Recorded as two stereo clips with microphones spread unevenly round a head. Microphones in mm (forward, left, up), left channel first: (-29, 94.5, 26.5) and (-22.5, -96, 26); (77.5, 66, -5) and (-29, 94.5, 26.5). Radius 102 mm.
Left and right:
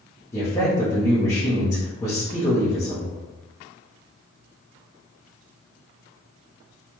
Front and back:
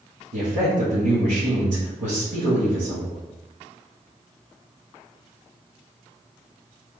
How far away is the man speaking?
About 1.4 m.